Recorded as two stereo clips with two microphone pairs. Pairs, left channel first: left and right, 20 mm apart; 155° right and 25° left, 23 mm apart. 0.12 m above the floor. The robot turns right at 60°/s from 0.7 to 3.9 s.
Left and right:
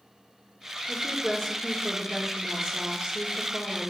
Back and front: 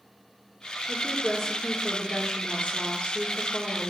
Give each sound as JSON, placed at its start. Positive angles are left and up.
{"t": 0.9, "sound": "a woman speaking", "azimuth_deg": 105, "distance_m": 2.5}